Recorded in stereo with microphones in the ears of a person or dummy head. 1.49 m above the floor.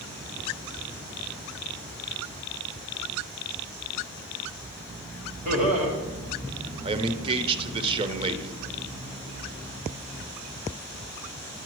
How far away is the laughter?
About 2.0 m.